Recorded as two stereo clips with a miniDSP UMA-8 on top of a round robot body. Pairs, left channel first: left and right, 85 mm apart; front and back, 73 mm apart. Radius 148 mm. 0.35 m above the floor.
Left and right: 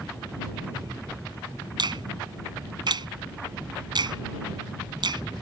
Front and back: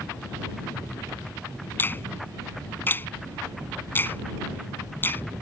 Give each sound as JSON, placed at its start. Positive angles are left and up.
{"t": 1.8, "sound": "a finger snap", "azimuth_deg": -60}